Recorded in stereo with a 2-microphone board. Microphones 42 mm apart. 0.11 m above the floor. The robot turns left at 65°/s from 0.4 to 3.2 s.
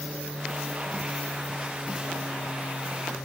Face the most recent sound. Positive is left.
turn(degrees=65)